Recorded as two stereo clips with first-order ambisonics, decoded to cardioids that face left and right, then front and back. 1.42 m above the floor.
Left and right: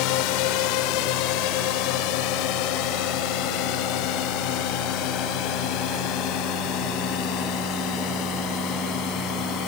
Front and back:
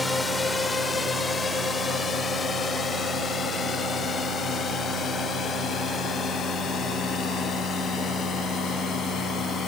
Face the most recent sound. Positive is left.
turn(degrees=60)